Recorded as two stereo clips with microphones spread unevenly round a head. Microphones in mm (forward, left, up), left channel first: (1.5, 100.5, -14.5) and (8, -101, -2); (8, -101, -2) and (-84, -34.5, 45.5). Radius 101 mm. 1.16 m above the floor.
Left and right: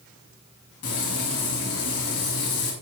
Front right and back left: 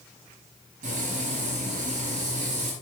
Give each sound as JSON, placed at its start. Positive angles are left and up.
{"t": 0.8, "sound": "frying", "azimuth_deg": 110, "distance_m": 5.5}